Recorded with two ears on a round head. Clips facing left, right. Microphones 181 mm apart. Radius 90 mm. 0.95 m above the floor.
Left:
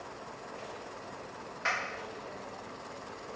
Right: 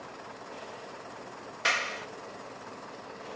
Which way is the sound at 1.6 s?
45° right (ahead or behind).